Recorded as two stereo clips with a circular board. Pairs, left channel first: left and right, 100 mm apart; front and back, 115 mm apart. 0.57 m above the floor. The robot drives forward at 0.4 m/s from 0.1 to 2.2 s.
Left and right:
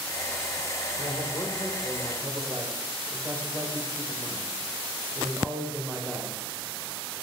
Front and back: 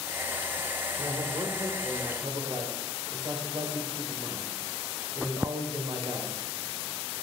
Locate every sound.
1.0 s a man speaking: 140° right, 2.5 m; by 6.3 s 145° right, 2.5 m